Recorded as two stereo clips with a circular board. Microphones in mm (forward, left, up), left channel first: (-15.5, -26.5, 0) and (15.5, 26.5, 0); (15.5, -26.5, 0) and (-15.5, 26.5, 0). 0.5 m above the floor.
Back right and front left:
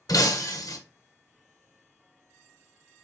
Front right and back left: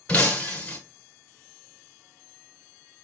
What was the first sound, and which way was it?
Breaking glass, 125° right.